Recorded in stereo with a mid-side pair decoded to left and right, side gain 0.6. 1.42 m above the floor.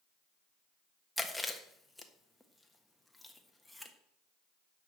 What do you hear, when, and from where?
1.2 s chewing: 5° left, 1.5 m